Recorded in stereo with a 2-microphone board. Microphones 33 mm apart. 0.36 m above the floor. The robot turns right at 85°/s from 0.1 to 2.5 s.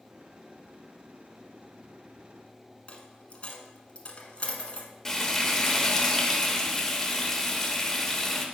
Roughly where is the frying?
Centre.